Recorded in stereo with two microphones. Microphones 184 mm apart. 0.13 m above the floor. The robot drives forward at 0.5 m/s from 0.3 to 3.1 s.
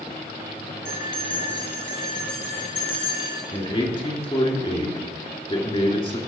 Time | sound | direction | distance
0.8 | a bell | 80° left | 2.5 m
3.5 | a man speaking | 30° left (ahead or behind) | 2 m